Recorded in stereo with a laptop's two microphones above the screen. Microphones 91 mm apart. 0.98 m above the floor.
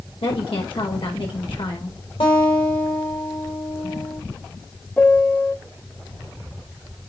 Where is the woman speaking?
75° left (ahead or behind), 4.5 m.